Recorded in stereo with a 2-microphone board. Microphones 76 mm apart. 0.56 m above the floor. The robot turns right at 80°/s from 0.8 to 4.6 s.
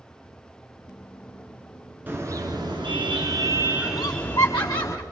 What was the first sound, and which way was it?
A car horn, 155° right.